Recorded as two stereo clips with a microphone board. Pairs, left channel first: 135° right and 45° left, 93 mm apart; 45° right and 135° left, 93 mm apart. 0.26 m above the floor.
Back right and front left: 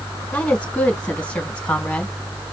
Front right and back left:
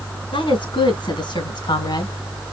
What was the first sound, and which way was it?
A woman speaking, 60° right.